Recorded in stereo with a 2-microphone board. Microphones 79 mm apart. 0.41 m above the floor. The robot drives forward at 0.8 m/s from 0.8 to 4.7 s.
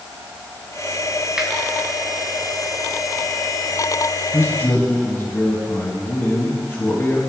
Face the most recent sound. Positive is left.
turn(degrees=35)  # may be behind; listen again after turning